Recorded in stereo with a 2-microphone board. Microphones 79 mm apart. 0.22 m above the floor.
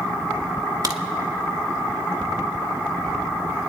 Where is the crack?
55° right (ahead or behind), 0.9 m.